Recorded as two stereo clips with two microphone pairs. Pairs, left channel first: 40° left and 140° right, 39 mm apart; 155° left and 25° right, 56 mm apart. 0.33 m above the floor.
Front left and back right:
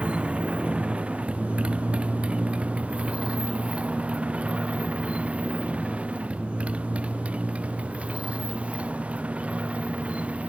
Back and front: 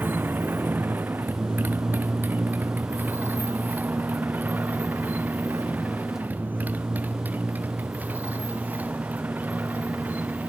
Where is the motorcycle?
80° right; by 10.5 s 90° right.